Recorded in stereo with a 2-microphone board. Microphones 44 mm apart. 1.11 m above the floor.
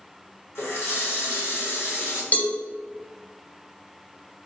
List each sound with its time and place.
0.6 s a running tap: 75° left (ahead or behind), 1.2 m
2.3 s a cowbell: 35° left (ahead or behind), 0.6 m